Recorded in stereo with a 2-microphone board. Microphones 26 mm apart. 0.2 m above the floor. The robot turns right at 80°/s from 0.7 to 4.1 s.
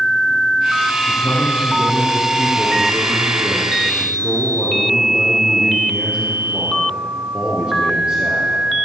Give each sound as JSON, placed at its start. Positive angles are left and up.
{"t": 1.1, "sound": "a man speaking", "azimuth_deg": 75, "distance_m": 3.5}